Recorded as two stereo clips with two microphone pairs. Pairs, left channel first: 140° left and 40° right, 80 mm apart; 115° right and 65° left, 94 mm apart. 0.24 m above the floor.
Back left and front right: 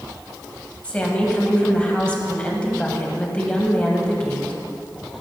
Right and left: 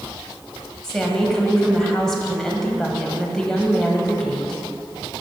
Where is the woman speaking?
175° left, 1.3 m.